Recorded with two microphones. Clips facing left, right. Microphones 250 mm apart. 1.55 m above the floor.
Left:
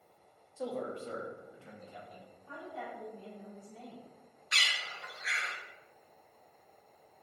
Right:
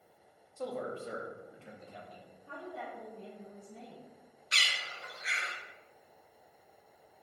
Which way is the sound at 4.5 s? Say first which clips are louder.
Right 1 dB; 30° right (ahead or behind).